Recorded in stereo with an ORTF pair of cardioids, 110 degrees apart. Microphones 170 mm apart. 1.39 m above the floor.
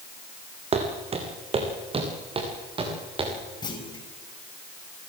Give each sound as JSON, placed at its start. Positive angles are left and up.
{"t": 0.7, "sound": "footsteps", "azimuth_deg": -40, "distance_m": 4.5}
{"t": 3.6, "sound": "a clunk", "azimuth_deg": 25, "distance_m": 5.0}